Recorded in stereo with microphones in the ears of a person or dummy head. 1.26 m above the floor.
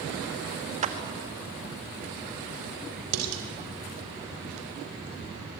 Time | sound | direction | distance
0.8 | a clap | 35° right (ahead or behind) | 1.7 m
3.1 | dishes clattering | 85° right | 3 m